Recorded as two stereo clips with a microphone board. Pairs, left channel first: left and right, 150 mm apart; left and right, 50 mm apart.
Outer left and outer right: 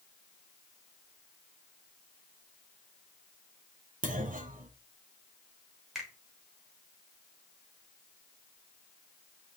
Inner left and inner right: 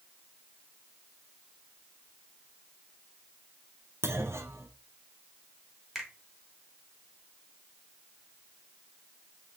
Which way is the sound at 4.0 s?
75° right (ahead or behind).